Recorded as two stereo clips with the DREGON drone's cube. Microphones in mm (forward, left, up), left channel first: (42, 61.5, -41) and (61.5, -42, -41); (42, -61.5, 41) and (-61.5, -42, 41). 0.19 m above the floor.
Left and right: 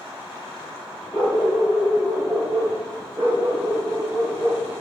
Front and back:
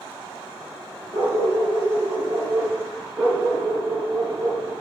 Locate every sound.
1.1 s a dog barking: 175° left, 2 m; by 4.7 s 130° right, 2.5 m